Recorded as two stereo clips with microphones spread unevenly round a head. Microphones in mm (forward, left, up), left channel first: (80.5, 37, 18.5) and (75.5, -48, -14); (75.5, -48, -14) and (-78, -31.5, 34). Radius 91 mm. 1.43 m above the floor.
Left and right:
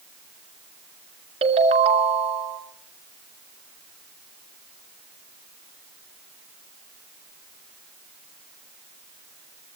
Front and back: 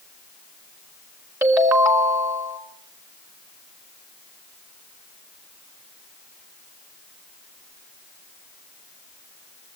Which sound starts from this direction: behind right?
A ringtone, at 1.4 s.